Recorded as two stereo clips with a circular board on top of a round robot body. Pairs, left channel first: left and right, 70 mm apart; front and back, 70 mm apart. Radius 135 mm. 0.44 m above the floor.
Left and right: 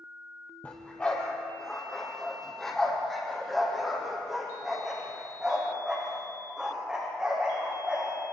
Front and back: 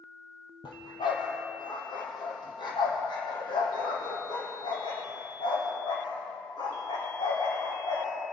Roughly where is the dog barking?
Ahead.